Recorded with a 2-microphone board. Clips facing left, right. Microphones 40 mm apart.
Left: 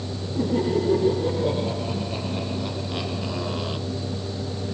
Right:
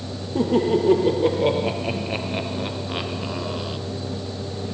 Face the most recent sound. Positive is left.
turn(degrees=10)  # may be behind; listen again after turning